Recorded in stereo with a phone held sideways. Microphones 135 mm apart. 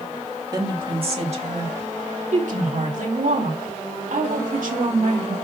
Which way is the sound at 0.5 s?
30° right (ahead or behind).